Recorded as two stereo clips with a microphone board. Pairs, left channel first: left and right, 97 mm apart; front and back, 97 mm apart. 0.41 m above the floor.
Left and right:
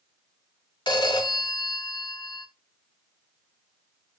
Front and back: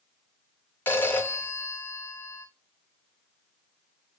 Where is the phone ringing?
65° left, 0.6 m.